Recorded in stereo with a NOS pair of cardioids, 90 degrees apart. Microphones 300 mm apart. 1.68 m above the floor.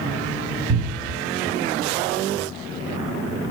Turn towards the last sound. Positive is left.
turn(degrees=-45)